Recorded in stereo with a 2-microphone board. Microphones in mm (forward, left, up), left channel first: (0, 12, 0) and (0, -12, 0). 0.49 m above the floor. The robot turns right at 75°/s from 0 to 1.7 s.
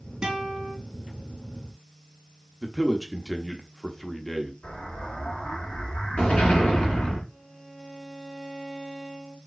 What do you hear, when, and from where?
0.2 s a guitar: 40° right, 2.5 m; by 0.7 s straight ahead, 2.5 m
2.6 s a man speaking: 5° left (ahead or behind), 0.7 m
4.6 s an explosion: 70° left (ahead or behind), 2.5 m
7.3 s a violin: 5° right (ahead or behind), 1.2 m